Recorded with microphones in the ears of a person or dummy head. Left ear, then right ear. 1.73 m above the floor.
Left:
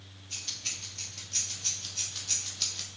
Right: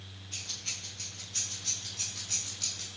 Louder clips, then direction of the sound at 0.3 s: Left 2 dB; 50° left (ahead or behind).